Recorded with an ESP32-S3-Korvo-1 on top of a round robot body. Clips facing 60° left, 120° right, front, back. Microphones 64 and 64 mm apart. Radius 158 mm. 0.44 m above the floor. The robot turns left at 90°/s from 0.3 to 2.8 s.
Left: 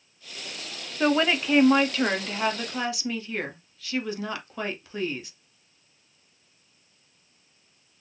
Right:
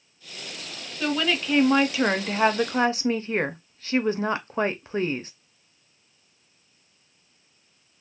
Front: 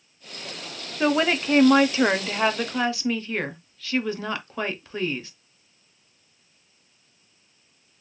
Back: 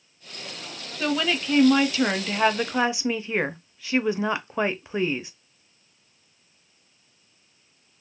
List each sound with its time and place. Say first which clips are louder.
1.0 s a woman speaking: left 3 dB, front 4 dB; 40° left, 0.9 m; by 5.3 s 120° right, 0.9 m